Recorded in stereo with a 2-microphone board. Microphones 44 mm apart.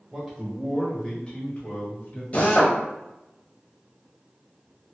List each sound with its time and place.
0.1 s a man speaking: 10° right (ahead or behind), 1.3 m; by 2.2 s 45° left (ahead or behind), 1.7 m
2.3 s a drill: 35° left (ahead or behind), 1.2 m